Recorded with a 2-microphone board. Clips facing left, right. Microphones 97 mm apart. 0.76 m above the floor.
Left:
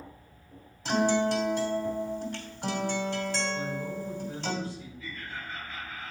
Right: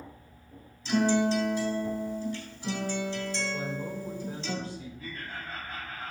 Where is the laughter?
60° right (ahead or behind), 4 m.